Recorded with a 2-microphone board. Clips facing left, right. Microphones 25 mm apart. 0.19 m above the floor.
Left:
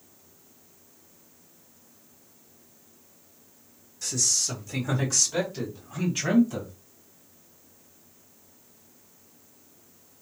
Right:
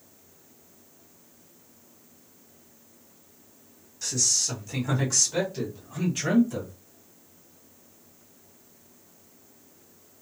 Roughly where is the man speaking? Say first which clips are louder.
Even; centre.